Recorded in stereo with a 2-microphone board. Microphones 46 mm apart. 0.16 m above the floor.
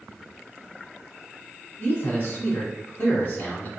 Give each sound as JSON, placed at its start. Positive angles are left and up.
{"t": 1.8, "sound": "a man speaking", "side_deg": 40, "distance_m": 1.5}